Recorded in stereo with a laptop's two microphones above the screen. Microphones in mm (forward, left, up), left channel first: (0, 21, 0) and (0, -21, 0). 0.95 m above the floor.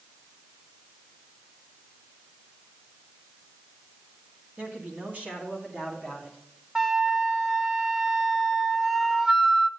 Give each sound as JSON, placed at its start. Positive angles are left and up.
{"t": 4.6, "sound": "a man speaking", "side_deg": -40, "distance_m": 1.7}
{"t": 6.8, "sound": "a flute", "side_deg": -10, "distance_m": 0.7}